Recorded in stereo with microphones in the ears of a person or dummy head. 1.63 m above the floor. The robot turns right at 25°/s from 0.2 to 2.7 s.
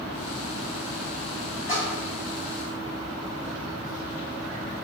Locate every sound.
1.7 s a splash: 25° left (ahead or behind), 0.7 m; by 2.1 s 20° left (ahead or behind), 0.7 m